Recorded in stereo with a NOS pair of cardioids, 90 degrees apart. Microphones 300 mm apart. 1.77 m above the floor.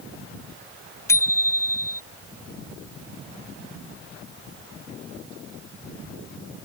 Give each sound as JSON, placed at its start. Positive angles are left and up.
{"t": 1.1, "sound": "a bicycle bell", "azimuth_deg": 10}